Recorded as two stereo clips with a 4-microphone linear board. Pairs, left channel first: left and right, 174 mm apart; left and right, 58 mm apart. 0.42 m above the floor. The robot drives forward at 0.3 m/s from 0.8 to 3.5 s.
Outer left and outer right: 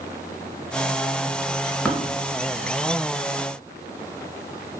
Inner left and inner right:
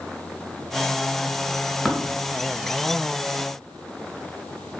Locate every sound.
1.9 s tapping: 5° left (ahead or behind), 0.8 m